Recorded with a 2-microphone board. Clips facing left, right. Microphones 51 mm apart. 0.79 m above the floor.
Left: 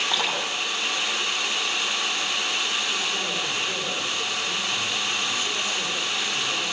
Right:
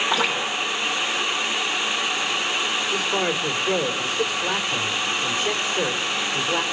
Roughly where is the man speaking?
Right.